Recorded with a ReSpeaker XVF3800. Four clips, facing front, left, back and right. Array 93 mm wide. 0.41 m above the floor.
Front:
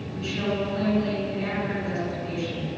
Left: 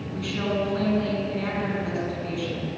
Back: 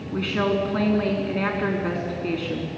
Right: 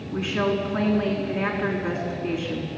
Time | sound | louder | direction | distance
0.1 | a woman speaking | right 3 dB, back 5 dB | 150° right | 5 m